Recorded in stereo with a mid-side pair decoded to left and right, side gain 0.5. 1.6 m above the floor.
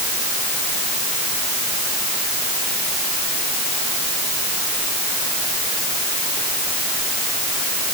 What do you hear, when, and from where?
Only background noise.